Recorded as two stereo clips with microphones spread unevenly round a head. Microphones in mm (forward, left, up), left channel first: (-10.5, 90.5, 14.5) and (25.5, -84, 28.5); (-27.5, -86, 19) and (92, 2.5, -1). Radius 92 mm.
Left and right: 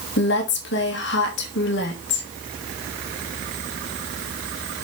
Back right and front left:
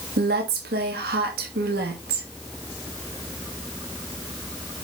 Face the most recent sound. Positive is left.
turn(degrees=80)